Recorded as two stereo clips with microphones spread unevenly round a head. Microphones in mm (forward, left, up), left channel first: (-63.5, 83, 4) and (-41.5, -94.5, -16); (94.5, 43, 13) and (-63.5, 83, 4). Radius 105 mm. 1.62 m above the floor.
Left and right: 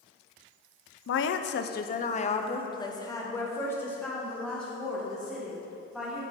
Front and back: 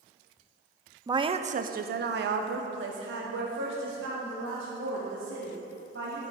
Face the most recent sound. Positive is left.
turn(degrees=-175)